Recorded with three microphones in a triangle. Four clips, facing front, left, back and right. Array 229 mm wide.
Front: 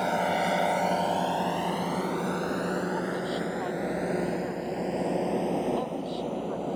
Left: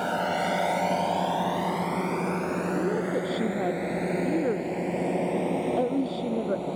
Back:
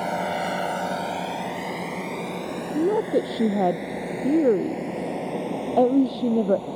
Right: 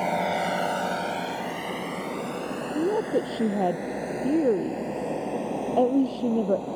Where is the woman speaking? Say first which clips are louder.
Right 6 dB, back 8 dB; 160° right.